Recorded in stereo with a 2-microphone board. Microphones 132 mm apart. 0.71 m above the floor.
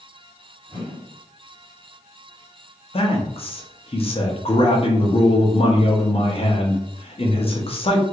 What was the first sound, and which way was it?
A whoosh, 15° left (ahead or behind).